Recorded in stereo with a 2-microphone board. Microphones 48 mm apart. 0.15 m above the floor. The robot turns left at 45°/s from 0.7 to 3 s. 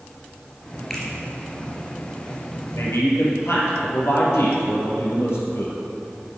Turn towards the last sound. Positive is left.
turn(degrees=65)  # may be behind; listen again after turning